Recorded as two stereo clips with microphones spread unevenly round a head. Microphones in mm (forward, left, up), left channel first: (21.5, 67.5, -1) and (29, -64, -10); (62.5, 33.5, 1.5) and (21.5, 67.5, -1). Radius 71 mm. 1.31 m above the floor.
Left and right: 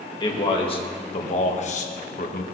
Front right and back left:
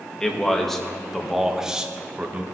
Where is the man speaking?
40° left, 2 m; by 2.4 s 80° left, 1.5 m.